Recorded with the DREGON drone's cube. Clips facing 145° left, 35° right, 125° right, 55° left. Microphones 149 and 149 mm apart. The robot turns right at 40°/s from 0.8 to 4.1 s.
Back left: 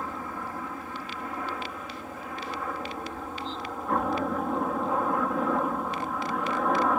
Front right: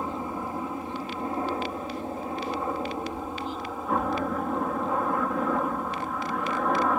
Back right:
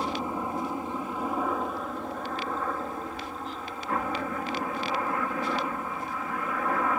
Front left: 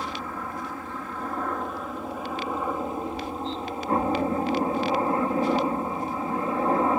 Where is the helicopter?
75° right; by 7.0 s 55° left.